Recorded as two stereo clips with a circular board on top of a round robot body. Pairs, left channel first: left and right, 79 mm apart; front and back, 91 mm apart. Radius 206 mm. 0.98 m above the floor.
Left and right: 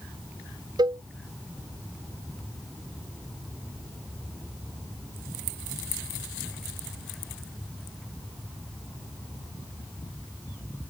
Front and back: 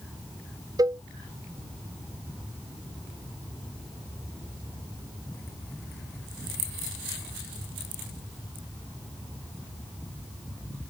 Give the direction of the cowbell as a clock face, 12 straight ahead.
4 o'clock.